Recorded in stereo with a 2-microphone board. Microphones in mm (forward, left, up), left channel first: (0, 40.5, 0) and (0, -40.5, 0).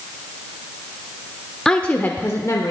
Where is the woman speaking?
5° left (ahead or behind), 0.9 m; by 2.7 s 45° left (ahead or behind), 1.2 m.